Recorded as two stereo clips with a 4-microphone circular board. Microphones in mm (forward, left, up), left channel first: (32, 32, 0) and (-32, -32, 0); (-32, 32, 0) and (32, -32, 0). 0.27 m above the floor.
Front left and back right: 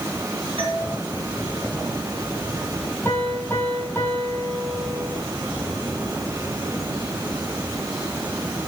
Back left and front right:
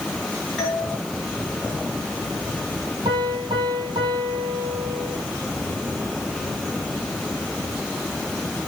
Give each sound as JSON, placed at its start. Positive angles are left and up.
{"t": 0.6, "sound": "a doorbell", "azimuth_deg": -150, "distance_m": 5.5}
{"t": 3.0, "sound": "a piano", "azimuth_deg": -20, "distance_m": 4.0}